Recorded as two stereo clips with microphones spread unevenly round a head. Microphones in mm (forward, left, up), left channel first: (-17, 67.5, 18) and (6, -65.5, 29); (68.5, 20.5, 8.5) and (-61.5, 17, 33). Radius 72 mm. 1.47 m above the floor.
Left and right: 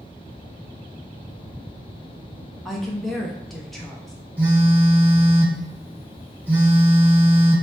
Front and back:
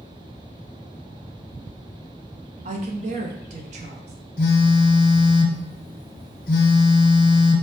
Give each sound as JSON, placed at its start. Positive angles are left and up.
{"t": 2.6, "sound": "a woman speaking", "azimuth_deg": -170, "distance_m": 0.5}
{"t": 4.4, "sound": "a phone buzzing", "azimuth_deg": -10, "distance_m": 0.6}